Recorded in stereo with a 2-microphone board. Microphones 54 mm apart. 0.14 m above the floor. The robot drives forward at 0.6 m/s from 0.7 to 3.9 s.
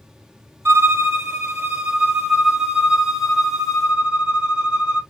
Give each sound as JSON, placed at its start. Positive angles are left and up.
{"t": 0.7, "sound": "a violin", "side_deg": -50, "distance_m": 0.6}